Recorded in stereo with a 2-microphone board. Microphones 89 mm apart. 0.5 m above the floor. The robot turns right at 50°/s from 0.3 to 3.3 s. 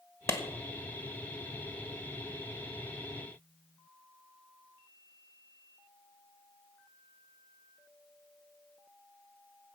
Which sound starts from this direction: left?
A clap, at 0.3 s.